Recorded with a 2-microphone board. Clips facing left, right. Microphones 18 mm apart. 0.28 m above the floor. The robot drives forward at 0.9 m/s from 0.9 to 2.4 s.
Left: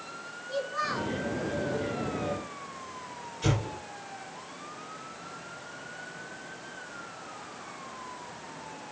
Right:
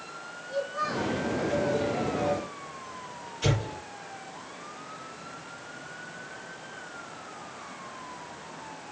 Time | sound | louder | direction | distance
0.5 | a child speaking | right 1 dB | 35° left (ahead or behind) | 3 m
3.4 | an explosion | right 1 dB | 30° right (ahead or behind) | 5.5 m